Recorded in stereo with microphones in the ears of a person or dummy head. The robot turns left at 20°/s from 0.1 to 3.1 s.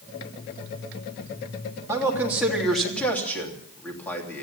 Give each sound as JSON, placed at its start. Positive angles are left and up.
{"t": 1.9, "sound": "a man speaking", "side_deg": -15, "distance_m": 3.0}